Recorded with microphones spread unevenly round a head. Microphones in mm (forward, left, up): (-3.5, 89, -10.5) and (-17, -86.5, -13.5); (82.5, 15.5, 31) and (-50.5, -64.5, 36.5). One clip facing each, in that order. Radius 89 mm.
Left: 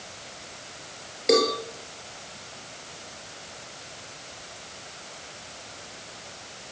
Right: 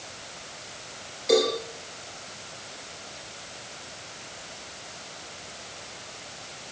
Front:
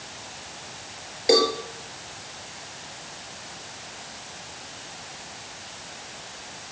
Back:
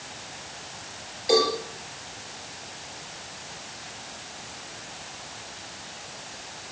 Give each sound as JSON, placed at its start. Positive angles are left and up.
{"t": 1.3, "sound": "a cowbell", "azimuth_deg": 75, "distance_m": 5.5}